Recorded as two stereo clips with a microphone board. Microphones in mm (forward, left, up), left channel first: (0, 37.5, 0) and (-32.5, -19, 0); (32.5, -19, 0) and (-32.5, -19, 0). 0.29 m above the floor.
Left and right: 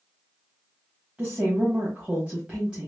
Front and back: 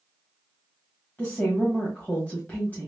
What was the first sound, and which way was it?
A woman speaking, 55° right.